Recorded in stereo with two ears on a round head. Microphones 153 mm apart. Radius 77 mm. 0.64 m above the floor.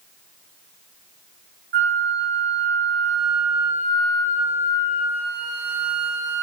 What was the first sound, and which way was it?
A flute, 55° right (ahead or behind).